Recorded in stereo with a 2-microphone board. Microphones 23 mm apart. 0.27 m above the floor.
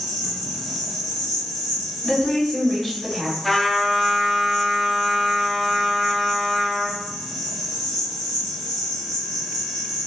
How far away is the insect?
About 1.6 m.